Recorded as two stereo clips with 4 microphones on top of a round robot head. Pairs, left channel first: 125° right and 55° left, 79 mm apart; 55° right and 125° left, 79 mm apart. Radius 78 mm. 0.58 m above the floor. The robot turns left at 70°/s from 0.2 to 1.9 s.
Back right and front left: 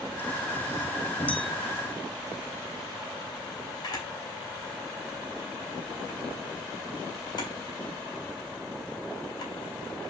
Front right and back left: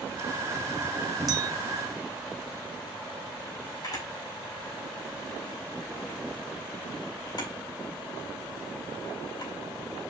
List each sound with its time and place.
1.3 s a clink: 165° left, 1.7 m; by 1.5 s 145° left, 1.7 m
3.8 s a camera shutter: 90° right, 4 m